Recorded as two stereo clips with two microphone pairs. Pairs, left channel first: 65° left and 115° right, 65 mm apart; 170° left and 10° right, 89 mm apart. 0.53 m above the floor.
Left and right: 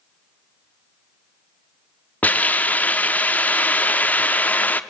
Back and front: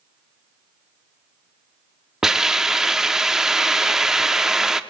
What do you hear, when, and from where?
2.2 s a hiss: 60° left, 1.0 m